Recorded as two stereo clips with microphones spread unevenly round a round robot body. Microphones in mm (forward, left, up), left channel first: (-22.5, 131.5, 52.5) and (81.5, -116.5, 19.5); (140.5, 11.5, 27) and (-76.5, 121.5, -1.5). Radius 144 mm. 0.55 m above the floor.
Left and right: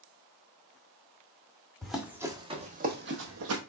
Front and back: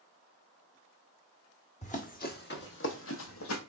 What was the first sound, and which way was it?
Running footsteps, 30° left.